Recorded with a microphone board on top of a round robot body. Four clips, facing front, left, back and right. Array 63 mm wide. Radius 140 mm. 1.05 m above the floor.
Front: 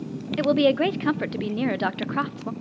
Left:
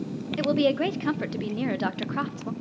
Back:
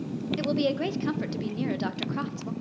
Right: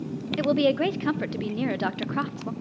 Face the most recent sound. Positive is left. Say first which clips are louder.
# right 1 dB, front 8 dB
turn(degrees=-5)